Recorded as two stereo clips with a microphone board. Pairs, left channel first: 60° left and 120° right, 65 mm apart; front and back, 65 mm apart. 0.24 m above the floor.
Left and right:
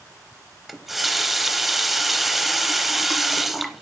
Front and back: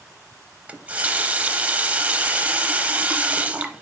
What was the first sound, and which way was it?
A running tap, 160° left.